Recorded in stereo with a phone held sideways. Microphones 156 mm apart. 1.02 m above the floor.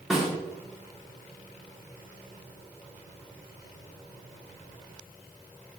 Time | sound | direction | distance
0.1 | a snare drum | 5° right (ahead or behind) | 3.5 m